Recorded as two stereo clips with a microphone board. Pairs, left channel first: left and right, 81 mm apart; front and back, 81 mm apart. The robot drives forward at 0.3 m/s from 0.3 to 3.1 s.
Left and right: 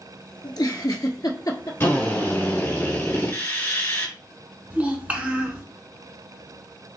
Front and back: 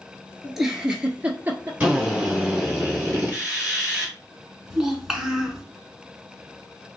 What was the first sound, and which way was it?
A giggle, 95° left.